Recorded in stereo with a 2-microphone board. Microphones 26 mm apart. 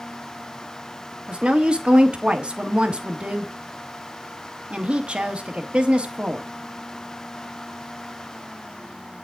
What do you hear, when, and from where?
1.3 s a woman speaking: 40° right (ahead or behind), 1.2 m